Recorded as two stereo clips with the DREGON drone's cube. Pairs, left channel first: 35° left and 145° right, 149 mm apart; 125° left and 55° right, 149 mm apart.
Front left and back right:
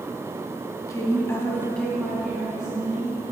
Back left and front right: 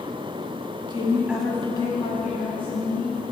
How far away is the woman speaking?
About 1.3 m.